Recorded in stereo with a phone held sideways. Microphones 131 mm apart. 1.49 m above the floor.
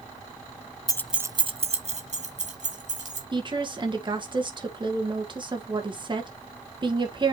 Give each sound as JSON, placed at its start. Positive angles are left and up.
{"t": 0.9, "sound": "keys jangling", "side_deg": 30, "distance_m": 0.5}
{"t": 3.3, "sound": "a woman speaking", "side_deg": -35, "distance_m": 1.7}